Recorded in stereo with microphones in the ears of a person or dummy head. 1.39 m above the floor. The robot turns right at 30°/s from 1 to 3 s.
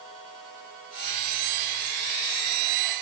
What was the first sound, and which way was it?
Only background noise.